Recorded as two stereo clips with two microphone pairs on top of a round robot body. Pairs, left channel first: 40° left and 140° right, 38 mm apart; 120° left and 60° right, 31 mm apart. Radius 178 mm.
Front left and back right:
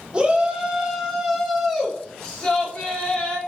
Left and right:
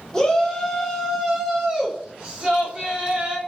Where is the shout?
170° left, 1.4 m; by 3.4 s straight ahead, 1.8 m.